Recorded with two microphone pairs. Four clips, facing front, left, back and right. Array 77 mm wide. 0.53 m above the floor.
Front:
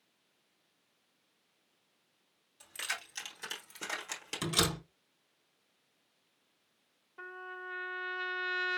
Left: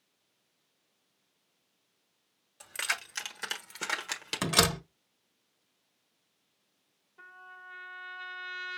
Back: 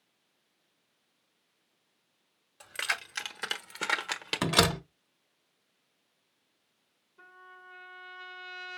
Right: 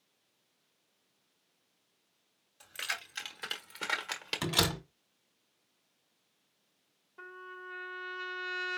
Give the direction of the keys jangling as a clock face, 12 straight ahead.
7 o'clock.